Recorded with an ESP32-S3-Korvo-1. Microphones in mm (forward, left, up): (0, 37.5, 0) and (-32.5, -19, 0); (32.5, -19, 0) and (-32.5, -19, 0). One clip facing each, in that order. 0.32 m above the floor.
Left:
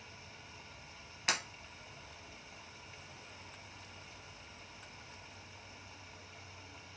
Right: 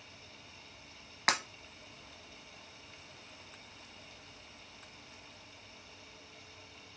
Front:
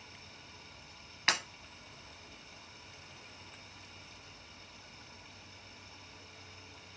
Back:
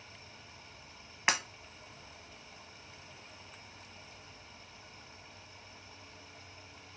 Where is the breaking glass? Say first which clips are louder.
Right 5 dB, back 2 dB; 110° right, 0.8 m.